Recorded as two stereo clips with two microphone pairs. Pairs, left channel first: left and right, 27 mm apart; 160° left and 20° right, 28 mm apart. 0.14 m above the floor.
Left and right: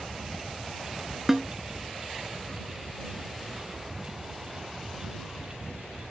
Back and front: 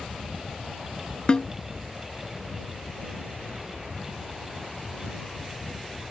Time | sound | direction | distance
1.3 | a snare drum | 160° right | ?